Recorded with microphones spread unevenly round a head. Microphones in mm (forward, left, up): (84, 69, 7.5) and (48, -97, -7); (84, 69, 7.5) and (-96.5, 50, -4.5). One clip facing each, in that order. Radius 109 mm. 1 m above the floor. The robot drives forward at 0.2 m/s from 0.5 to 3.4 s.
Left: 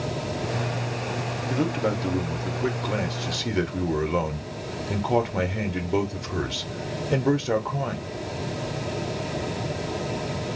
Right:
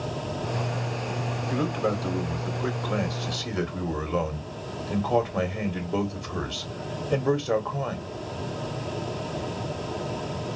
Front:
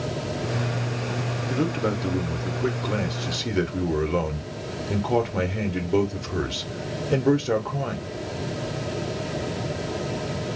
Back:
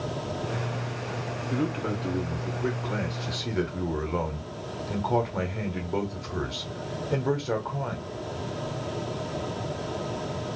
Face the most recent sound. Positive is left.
turn(degrees=15)